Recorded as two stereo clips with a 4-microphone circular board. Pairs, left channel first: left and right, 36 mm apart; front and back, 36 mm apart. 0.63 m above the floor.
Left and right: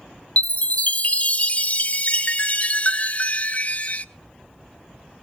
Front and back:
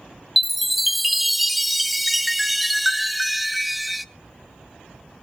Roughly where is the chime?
Left.